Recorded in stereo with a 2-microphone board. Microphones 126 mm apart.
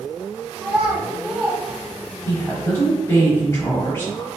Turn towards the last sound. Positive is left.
turn(degrees=20)  # may be behind; listen again after turning